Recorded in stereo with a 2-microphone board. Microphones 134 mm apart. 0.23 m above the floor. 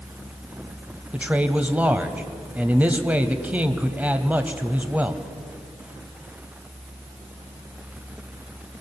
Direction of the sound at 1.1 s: 10° right (ahead or behind).